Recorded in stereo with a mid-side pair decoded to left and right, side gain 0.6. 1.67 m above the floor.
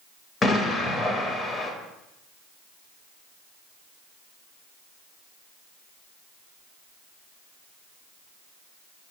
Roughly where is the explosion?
Ahead left.